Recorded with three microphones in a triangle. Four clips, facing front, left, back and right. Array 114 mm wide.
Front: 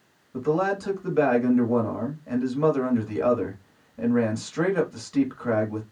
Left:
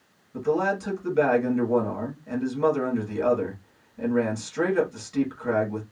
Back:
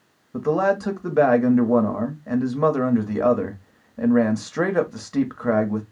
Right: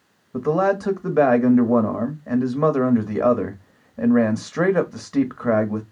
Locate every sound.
0.3 s a man speaking: 120° right, 1.1 m